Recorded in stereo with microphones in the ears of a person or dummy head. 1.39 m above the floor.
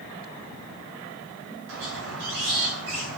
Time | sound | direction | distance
1.7 | a squeak | 80° right | 5.5 m